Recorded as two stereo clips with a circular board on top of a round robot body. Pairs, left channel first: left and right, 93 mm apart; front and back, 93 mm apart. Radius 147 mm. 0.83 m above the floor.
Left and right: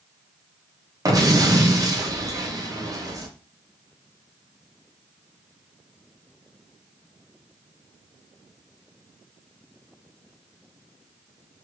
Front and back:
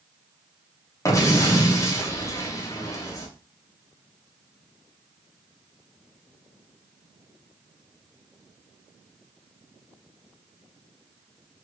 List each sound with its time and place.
1.1 s an explosion: 50° right, 0.9 m